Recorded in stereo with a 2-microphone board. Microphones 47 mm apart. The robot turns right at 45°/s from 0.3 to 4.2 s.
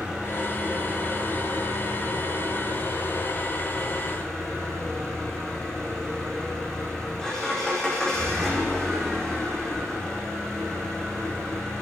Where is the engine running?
165° right, 10 m; by 11.8 s 15° left, 10 m.